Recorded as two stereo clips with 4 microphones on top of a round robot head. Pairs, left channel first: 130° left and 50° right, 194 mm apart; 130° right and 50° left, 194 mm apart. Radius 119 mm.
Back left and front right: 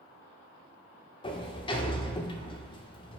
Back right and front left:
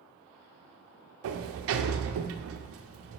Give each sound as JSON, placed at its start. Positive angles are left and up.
{"t": 1.2, "sound": "a sliding door", "azimuth_deg": 65, "distance_m": 0.6}